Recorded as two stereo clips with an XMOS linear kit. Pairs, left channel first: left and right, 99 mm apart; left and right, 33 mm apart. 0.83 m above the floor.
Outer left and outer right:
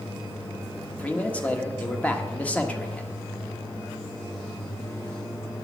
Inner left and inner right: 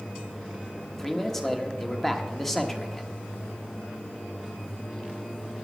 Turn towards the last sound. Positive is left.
turn(degrees=15)  # may be behind; listen again after turning